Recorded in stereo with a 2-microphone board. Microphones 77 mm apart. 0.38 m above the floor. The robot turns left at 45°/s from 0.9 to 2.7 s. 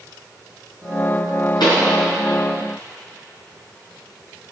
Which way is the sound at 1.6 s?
80° left.